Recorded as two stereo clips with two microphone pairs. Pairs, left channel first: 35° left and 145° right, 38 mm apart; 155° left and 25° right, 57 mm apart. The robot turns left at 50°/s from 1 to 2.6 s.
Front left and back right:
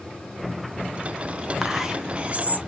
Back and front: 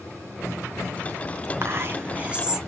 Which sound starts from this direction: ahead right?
Whispering, at 1.6 s.